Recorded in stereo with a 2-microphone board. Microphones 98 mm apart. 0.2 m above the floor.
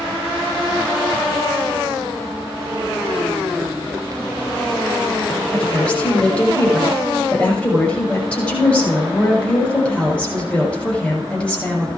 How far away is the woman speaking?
About 7.5 m.